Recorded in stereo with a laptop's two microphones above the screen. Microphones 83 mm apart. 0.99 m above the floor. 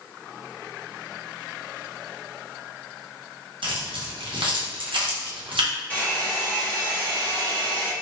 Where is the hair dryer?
20° left (ahead or behind), 1.1 m.